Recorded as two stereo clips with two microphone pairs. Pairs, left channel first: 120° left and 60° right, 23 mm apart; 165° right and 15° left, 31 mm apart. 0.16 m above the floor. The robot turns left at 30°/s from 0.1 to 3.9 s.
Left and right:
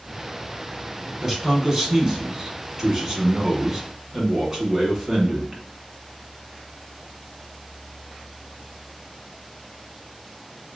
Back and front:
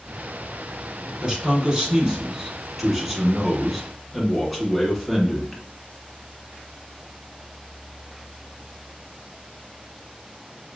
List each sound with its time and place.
1.2 s a man speaking: straight ahead, 1.2 m; by 5.6 s 80° right, 1.2 m